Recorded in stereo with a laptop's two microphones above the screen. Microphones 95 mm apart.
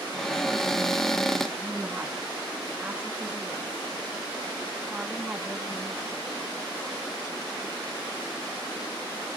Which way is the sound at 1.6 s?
15° right (ahead or behind).